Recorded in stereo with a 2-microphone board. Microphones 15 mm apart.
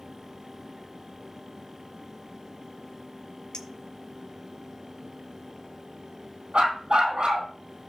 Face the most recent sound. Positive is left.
turn(degrees=-75)  # may be behind; listen again after turning